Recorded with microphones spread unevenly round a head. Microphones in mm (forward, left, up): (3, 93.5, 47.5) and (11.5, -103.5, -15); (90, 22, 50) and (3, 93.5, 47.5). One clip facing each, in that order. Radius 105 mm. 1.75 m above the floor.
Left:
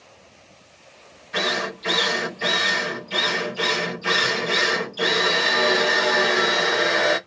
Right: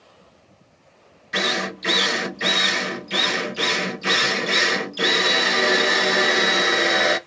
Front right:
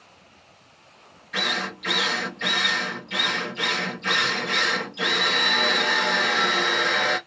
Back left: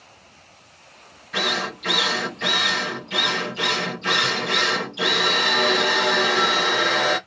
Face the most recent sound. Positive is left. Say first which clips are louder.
# even, back left 3 dB
turn(degrees=-160)